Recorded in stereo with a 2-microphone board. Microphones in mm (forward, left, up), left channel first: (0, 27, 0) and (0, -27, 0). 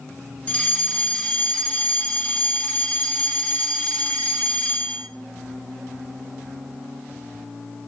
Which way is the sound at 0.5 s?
25° left (ahead or behind).